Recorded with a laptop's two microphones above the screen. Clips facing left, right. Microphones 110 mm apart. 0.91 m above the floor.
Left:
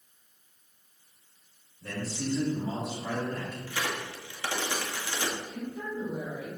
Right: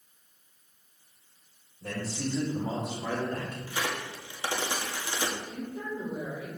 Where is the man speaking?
40° right (ahead or behind), 3 m; by 3.6 s 70° right (ahead or behind), 2 m.